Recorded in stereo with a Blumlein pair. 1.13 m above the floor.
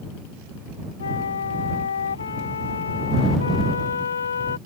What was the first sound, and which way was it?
A flute, 70° left.